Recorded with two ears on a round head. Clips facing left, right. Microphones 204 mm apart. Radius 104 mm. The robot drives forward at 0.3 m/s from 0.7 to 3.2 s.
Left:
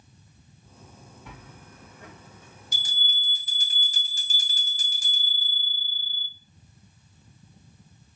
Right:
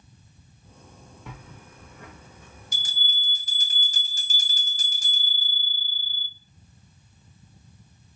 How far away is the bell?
About 0.8 m.